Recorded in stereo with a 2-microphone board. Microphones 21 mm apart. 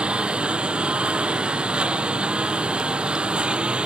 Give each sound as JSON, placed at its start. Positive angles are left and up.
{"t": 0.0, "sound": "a lawn mower", "side_deg": -60}